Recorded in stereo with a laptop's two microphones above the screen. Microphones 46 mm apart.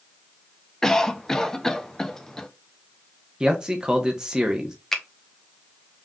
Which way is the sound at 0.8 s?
15° left (ahead or behind).